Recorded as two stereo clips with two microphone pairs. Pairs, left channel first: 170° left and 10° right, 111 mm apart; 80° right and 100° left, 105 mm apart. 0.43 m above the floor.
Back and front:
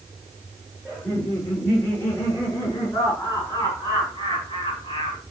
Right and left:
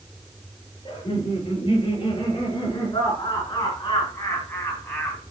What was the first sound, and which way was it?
Laughter, 125° right.